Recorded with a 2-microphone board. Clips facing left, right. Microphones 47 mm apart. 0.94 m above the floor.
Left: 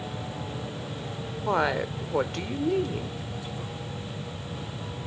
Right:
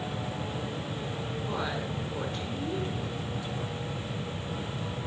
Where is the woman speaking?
65° left (ahead or behind), 2.5 m.